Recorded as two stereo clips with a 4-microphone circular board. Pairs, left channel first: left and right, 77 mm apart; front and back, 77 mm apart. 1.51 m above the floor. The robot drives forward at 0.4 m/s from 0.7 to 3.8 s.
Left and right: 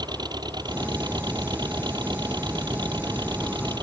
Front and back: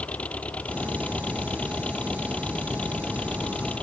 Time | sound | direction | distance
0.0 | an engine running | 70° right | ?